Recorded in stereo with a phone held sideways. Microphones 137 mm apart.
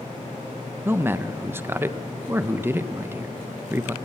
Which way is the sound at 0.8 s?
15° right (ahead or behind).